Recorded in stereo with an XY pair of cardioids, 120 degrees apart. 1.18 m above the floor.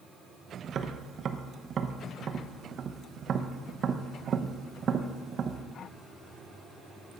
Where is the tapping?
45° right, 0.9 m.